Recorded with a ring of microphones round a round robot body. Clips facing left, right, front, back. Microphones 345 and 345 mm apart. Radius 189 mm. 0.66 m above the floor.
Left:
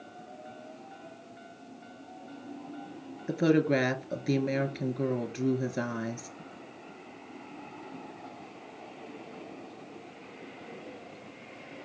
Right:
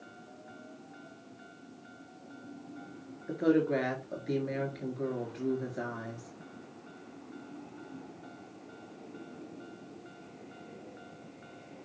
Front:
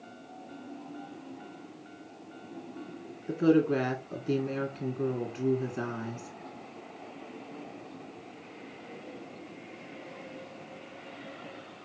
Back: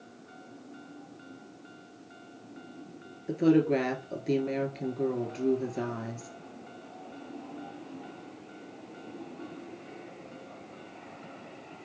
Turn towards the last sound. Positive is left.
turn(degrees=85)